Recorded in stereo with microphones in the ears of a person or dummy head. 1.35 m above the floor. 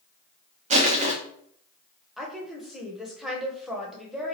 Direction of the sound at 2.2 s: 5° right (ahead or behind).